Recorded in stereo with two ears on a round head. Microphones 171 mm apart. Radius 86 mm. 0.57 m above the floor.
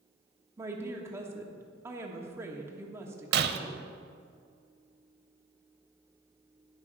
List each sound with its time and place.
0.6 s a woman speaking: 15° right (ahead or behind), 1.2 m
3.3 s breaking glass: 55° right (ahead or behind), 0.7 m